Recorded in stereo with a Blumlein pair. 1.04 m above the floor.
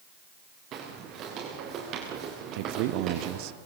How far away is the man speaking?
About 1.0 m.